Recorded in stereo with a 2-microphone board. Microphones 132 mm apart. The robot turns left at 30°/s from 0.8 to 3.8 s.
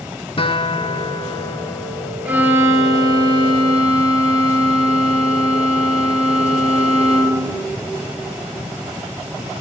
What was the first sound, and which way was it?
A guitar, 55° left.